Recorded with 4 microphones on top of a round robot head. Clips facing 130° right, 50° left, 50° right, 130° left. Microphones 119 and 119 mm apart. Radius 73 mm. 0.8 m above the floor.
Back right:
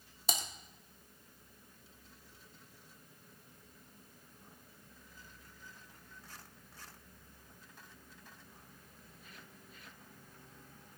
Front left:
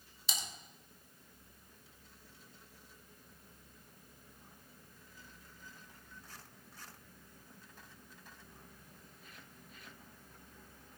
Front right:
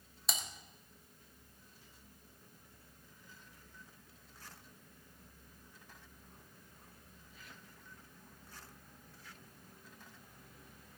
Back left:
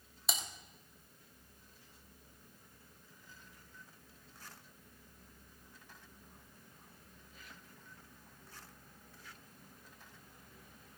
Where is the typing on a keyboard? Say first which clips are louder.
Back right 6 dB, back left 1 dB; 145° right, 1.2 m.